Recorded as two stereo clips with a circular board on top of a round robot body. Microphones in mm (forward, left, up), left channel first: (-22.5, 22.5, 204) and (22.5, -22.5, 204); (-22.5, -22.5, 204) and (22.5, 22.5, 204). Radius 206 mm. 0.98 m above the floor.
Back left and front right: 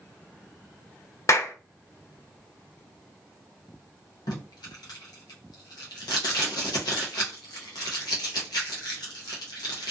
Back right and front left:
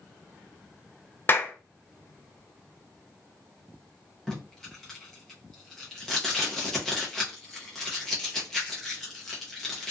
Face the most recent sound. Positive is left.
turn(degrees=140)